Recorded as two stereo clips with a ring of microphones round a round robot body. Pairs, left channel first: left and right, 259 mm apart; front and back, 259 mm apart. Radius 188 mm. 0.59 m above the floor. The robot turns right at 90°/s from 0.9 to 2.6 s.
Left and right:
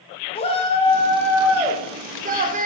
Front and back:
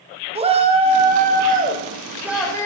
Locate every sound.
0.3 s a shout: 135° left, 0.8 m; by 2.7 s 70° right, 0.8 m